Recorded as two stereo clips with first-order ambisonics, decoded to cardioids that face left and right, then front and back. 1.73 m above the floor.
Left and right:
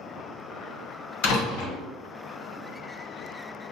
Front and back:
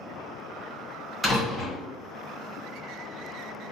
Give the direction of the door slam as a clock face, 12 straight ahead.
9 o'clock.